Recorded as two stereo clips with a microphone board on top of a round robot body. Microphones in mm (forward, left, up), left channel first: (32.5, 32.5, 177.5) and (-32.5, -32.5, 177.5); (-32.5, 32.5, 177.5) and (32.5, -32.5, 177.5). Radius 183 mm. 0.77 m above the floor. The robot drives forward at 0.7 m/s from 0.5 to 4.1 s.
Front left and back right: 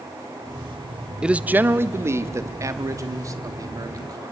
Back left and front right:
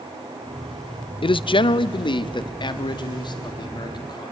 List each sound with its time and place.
1.2 s a man speaking: 145° left, 0.6 m; by 4.3 s 175° left, 2.5 m